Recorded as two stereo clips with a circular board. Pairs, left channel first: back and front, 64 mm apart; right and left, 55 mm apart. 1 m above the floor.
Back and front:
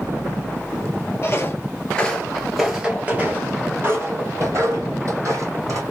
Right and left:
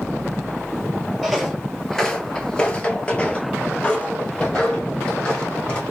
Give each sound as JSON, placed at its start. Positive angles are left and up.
{"t": 1.2, "sound": "footsteps", "azimuth_deg": 180, "distance_m": 1.2}